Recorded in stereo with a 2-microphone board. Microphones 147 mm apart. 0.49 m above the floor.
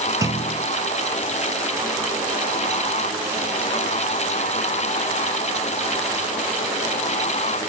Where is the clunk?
25° right (ahead or behind), 1.0 m.